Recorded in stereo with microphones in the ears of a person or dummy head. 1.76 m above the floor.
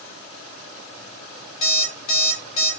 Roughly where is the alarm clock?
Left.